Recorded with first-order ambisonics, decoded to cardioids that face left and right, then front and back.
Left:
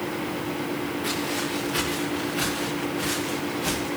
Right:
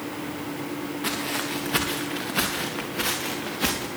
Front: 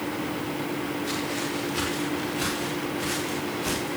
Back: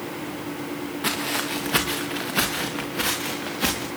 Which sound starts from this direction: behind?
Footsteps, at 1.0 s.